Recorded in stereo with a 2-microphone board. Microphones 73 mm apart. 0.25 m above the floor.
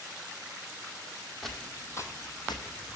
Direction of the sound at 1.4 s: Centre (ahead or behind).